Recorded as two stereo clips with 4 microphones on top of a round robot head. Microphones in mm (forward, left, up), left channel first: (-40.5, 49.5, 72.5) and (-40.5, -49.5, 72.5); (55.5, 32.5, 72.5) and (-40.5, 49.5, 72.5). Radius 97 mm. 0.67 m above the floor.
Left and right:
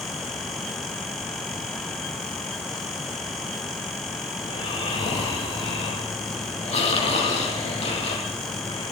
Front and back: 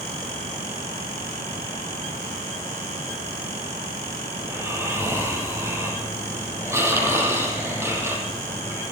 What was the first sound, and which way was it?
Snoring, 105° left.